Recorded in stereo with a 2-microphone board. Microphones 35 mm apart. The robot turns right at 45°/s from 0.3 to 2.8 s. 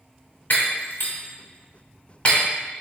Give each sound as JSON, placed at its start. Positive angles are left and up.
{"t": 0.5, "sound": "breaking glass", "side_deg": 60, "distance_m": 1.2}